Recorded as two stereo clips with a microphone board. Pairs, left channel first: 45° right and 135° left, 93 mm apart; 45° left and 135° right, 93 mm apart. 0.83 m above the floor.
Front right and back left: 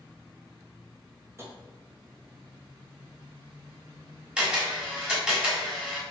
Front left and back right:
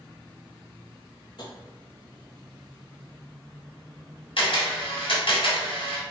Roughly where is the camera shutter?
Ahead left.